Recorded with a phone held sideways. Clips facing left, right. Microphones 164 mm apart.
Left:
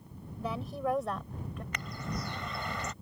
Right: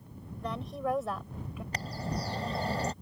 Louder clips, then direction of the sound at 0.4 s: Left 1 dB; 5° left (ahead or behind).